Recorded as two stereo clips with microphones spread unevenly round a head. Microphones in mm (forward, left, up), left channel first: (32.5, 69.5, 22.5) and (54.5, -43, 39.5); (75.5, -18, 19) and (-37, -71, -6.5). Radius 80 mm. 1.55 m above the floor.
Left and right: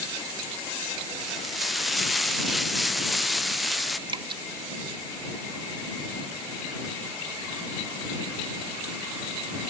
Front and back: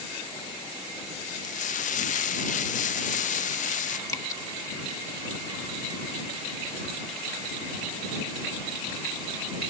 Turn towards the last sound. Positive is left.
turn(degrees=-35)